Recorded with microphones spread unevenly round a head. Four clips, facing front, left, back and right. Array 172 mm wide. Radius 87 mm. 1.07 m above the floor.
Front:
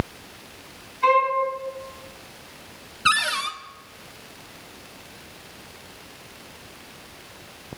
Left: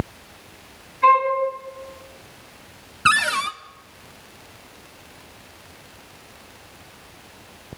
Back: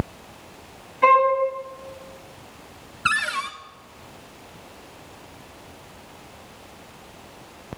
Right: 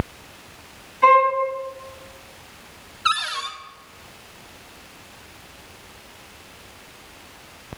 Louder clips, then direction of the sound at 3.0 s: Left 5 dB, front 2 dB; 90° left.